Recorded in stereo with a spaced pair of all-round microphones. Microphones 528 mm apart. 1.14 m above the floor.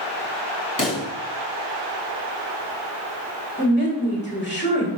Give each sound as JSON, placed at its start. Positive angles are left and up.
{"t": 0.8, "sound": "a pop", "side_deg": 35, "distance_m": 2.0}
{"t": 3.6, "sound": "a woman speaking", "side_deg": 20, "distance_m": 2.5}